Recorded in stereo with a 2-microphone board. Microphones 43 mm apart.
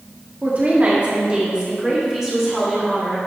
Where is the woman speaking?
40° right (ahead or behind), 2 m; by 3.2 s 5° right (ahead or behind), 4.5 m.